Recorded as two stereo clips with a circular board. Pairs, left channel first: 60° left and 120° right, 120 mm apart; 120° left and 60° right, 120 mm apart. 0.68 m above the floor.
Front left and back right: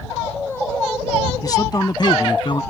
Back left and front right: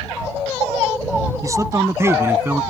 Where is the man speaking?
Straight ahead; by 2.6 s 15° left.